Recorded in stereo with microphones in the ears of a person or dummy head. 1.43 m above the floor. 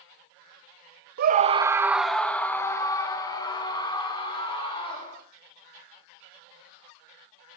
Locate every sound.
1.2 s a scream: 60° right (ahead or behind), 0.8 m; by 5.2 s 20° left (ahead or behind), 5.5 m